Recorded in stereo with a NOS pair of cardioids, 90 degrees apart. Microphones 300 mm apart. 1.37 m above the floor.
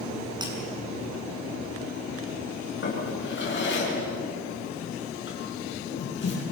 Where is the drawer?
40° left, 8.5 m.